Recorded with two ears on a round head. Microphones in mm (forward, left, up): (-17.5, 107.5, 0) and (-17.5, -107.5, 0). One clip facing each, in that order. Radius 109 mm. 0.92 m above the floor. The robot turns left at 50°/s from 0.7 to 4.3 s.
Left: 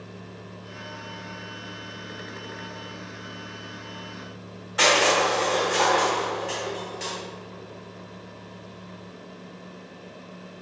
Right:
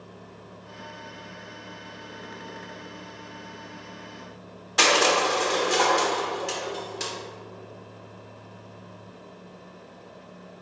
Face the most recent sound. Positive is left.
turn(degrees=-60)  # may be behind; listen again after turning